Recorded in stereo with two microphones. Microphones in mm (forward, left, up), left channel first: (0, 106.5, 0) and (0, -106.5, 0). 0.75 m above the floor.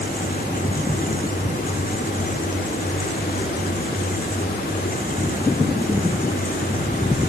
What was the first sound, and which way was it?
Only background noise.